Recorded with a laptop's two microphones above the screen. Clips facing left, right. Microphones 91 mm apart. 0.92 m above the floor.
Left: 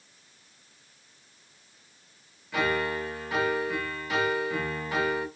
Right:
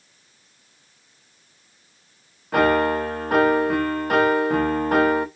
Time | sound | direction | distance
2.5 | a piano | 55° right (ahead or behind) | 0.5 m